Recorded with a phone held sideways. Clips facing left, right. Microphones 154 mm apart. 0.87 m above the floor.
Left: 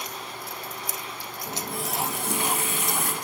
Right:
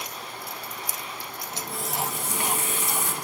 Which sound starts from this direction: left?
A running tap, at 1.5 s.